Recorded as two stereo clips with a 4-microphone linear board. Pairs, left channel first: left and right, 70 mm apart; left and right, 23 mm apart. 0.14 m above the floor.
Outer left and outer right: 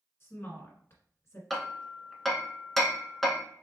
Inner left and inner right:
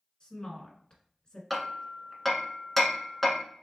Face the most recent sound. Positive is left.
turn(degrees=5)  # may be behind; listen again after turning